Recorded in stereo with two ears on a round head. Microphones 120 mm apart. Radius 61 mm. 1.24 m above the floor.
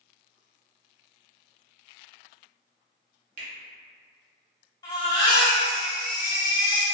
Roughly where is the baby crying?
Left.